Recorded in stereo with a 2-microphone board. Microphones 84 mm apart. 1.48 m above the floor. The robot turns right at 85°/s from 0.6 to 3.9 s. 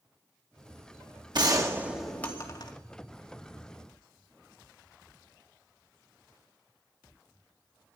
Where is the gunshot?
60° right, 2.5 m; by 2.7 s 55° left, 2.5 m.